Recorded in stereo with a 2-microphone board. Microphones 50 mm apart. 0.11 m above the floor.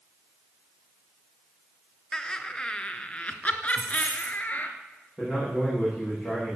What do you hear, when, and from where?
2.1 s laughter: 10° left (ahead or behind), 1.5 m; by 4.7 s 35° left (ahead or behind), 1.8 m
3.7 s a dropped coin: 55° right (ahead or behind), 4.5 m
5.2 s a man speaking: 5° left (ahead or behind), 9 m